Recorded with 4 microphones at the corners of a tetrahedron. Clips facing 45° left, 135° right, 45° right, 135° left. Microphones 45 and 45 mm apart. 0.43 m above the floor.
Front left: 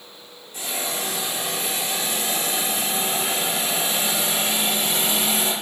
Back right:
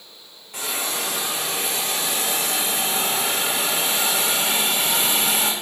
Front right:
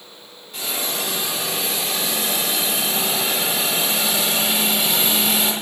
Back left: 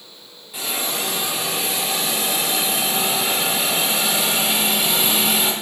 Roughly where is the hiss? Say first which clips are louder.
Back right 1 dB, back left 1 dB; behind right.